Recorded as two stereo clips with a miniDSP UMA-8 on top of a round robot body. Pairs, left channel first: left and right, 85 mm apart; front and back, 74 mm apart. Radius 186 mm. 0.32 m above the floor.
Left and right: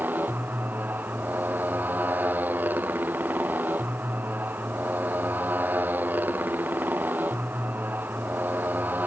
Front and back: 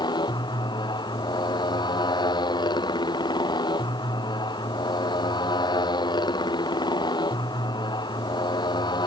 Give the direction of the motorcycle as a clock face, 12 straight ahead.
1 o'clock.